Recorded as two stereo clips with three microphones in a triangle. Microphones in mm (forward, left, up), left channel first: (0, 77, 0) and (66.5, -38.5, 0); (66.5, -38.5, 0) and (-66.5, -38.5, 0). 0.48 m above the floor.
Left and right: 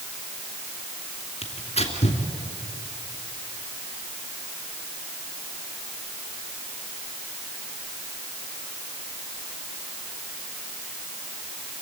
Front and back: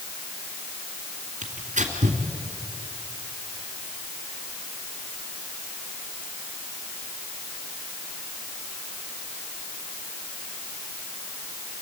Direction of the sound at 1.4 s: 160° left.